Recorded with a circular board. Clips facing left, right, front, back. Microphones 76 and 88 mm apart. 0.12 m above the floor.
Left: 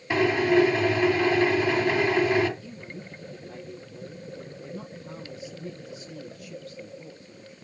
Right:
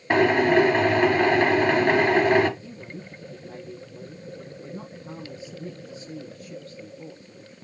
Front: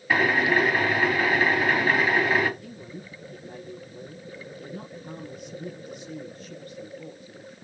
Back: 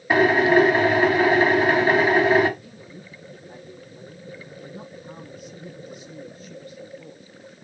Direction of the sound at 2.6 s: 35° right.